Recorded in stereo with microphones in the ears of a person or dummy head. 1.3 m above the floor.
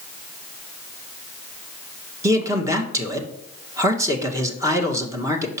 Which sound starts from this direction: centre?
A man speaking, at 2.2 s.